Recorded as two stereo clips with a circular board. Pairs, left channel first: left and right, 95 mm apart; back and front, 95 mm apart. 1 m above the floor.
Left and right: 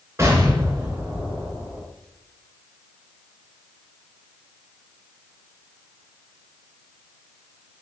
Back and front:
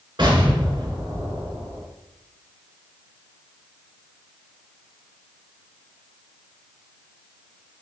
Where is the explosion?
30° right, 3.5 m.